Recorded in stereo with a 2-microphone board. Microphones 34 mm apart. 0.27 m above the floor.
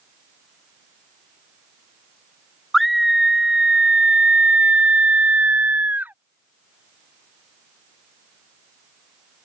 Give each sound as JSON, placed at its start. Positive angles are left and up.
{"t": 2.7, "sound": "a scream", "side_deg": 5}